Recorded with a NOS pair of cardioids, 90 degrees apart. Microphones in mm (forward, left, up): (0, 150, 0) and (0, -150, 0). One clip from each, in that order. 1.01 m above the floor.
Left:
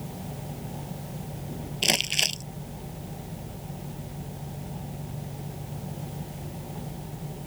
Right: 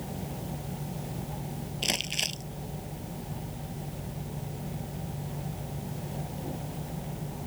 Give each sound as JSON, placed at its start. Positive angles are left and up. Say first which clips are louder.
{"t": 1.8, "sound": "crumpling", "louder": "left 6 dB", "azimuth_deg": 45}